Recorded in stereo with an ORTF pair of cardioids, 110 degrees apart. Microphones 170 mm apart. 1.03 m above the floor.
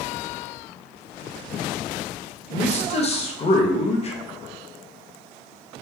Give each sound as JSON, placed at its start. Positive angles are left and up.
{"t": 2.5, "sound": "a man speaking", "azimuth_deg": 35, "distance_m": 0.7}